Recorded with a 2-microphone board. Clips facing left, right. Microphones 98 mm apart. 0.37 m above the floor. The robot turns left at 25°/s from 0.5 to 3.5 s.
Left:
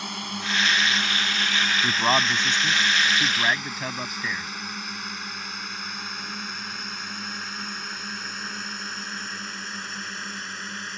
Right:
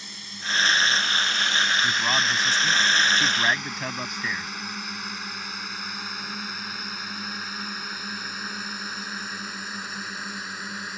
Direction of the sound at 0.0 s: 65° left (ahead or behind).